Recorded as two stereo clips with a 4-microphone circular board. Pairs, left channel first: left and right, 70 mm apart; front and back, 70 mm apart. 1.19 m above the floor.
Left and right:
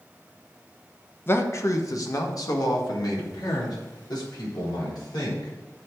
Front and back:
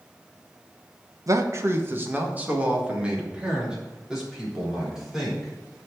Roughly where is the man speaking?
Behind left.